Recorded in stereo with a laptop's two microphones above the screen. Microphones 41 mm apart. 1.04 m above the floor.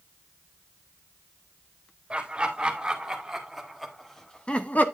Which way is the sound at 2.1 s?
25° right (ahead or behind).